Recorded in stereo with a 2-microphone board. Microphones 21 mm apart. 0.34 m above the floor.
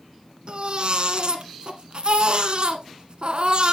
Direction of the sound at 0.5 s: 50° right (ahead or behind).